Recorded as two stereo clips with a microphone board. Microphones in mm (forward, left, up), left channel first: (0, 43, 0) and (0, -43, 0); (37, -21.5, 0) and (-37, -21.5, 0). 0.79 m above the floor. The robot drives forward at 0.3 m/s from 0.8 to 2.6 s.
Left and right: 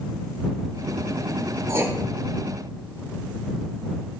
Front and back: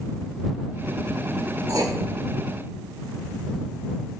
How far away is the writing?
About 0.6 m.